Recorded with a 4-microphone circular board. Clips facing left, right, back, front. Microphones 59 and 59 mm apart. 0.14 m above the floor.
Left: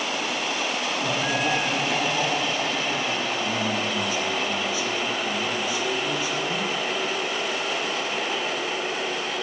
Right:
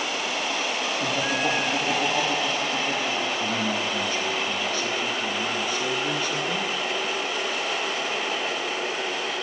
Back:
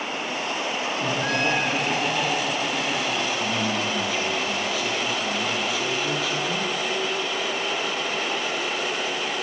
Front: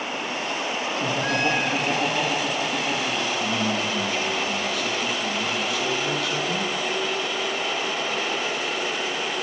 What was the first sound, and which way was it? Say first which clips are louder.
Laughter: even, front 1 dB; 90° right.